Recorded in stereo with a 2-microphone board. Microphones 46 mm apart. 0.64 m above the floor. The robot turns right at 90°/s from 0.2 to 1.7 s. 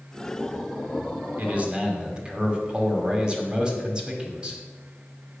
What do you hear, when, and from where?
1.4 s a man speaking: 45° right (ahead or behind), 1.9 m; by 4.6 s 20° right (ahead or behind), 1.9 m